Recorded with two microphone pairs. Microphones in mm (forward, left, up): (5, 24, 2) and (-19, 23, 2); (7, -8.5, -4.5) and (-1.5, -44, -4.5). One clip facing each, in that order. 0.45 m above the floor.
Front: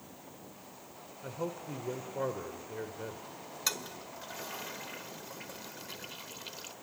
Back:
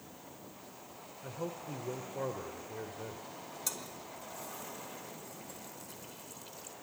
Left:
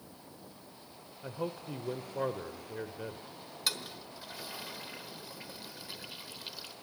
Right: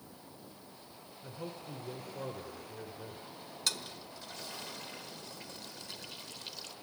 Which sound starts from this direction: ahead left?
A man speaking, at 1.2 s.